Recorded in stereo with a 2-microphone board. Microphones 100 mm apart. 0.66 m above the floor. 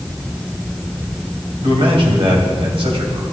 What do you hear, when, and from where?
1.6 s a man speaking: 65° right (ahead or behind), 3 m